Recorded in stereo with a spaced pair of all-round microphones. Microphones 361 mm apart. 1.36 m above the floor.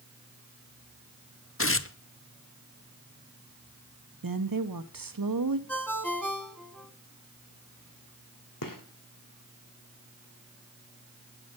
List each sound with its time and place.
1.6 s tearing paper: 35° left (ahead or behind), 0.7 m
4.2 s a woman speaking: 65° right (ahead or behind), 0.9 m
5.7 s a ringtone: 5° left (ahead or behind), 2.0 m
8.6 s a gunshot: 65° left (ahead or behind), 1.8 m